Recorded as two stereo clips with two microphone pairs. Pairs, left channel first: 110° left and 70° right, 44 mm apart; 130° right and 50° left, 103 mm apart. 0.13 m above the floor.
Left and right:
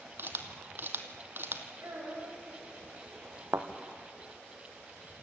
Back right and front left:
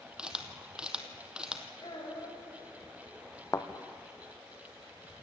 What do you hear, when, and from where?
0.2 s a camera shutter: 35° right, 1.9 m
1.8 s a child speaking: 90° right, 8 m
3.5 s a thud: 70° right, 1.6 m